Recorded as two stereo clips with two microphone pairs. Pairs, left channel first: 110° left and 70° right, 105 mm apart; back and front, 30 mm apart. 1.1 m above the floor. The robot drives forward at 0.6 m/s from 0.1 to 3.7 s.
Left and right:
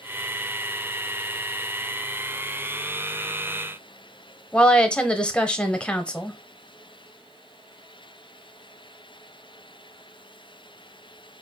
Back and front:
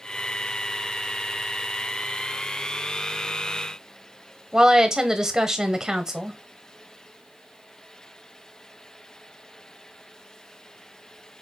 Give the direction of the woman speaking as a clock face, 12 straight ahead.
10 o'clock.